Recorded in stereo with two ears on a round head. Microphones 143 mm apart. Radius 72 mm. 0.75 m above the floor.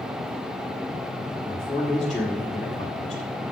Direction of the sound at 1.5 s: 5° left (ahead or behind).